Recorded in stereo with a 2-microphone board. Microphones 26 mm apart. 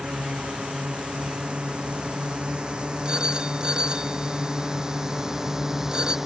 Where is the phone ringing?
25° right (ahead or behind).